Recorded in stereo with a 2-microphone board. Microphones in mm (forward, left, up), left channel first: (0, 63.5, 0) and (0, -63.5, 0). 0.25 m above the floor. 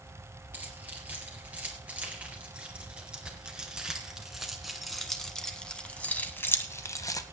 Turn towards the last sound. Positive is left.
turn(degrees=30)  # may be behind; listen again after turning